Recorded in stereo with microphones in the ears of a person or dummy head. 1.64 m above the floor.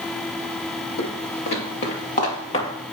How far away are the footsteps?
About 3 m.